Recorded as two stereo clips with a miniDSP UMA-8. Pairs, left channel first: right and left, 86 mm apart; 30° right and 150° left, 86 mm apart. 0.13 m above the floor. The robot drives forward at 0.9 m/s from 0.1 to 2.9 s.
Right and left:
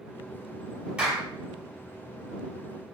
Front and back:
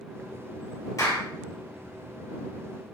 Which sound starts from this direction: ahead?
A clap, at 1.0 s.